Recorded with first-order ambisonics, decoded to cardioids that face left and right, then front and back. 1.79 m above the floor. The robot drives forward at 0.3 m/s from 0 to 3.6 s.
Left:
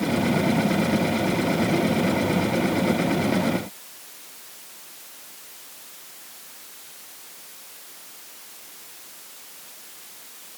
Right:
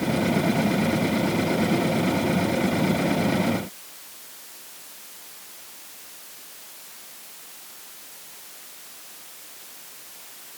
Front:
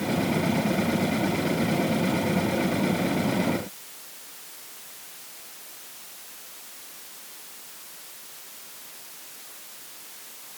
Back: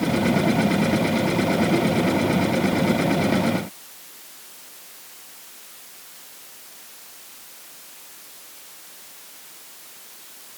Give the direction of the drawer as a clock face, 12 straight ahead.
I don't hear a drawer.